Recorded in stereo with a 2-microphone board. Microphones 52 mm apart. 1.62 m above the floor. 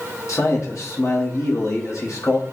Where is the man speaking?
70° left (ahead or behind), 1.6 m.